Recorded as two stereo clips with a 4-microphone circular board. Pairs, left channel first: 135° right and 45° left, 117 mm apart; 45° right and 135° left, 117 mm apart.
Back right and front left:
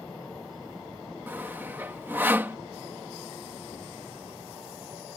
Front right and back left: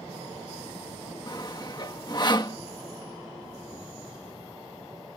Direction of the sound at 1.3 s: 20° right.